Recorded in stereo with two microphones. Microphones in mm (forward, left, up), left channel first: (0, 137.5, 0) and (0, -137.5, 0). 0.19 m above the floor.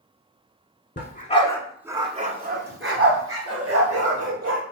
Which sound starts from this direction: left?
A dog barking, at 1.0 s.